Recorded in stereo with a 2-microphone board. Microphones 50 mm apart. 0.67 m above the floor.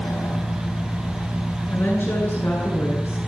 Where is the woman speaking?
60° left (ahead or behind), 9.5 m.